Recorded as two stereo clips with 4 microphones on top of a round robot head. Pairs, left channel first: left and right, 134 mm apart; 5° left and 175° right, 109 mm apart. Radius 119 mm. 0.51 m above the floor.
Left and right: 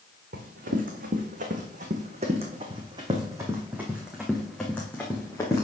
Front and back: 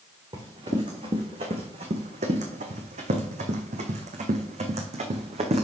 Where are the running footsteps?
115° right, 2.5 m; by 5.6 s 160° left, 2.5 m.